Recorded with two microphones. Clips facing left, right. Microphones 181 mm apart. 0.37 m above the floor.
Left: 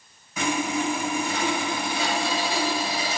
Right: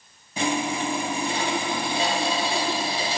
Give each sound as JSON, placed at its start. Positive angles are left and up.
{"t": 0.4, "sound": "sawing", "side_deg": -30, "distance_m": 1.0}